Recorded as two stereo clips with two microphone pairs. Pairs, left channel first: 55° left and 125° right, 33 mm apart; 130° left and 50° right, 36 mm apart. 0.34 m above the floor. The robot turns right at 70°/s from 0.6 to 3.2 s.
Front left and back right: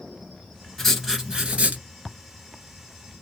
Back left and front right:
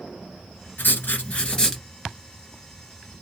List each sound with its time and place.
0.8 s writing: 140° left, 1.5 m; by 1.8 s 145° right, 1.5 m